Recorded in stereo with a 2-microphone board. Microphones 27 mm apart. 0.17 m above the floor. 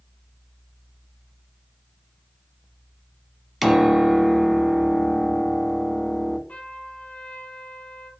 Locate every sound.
3.6 s a piano: centre (ahead or behind), 1.3 m
6.5 s a trumpet: 60° left (ahead or behind), 4.5 m